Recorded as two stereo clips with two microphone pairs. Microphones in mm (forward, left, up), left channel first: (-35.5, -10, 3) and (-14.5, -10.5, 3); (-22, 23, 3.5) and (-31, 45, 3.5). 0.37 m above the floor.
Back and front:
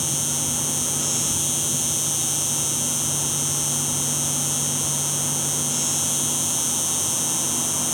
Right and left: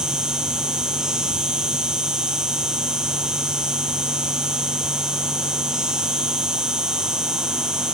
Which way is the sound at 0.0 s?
85° left.